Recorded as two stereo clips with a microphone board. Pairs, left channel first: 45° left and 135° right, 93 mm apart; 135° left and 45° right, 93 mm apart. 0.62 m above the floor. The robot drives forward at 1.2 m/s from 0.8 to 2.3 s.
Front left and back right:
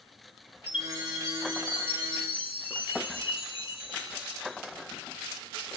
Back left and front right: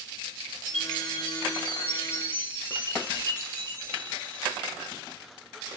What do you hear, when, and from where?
0.7 s a chime: 55° left, 6 m; by 4.6 s 70° left, 5 m